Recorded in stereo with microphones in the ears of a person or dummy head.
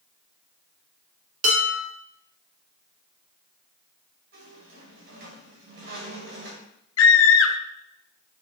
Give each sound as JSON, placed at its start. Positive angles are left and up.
{"t": 1.4, "sound": "dishes clattering", "side_deg": -45, "distance_m": 2.0}
{"t": 4.3, "sound": "a squeak", "side_deg": -60, "distance_m": 3.0}
{"t": 7.0, "sound": "a scream", "side_deg": 85, "distance_m": 0.8}